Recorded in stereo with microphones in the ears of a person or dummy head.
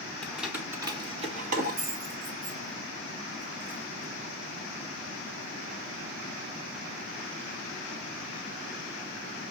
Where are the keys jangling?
5° left (ahead or behind), 0.8 m; by 4.1 s 80° right, 2 m.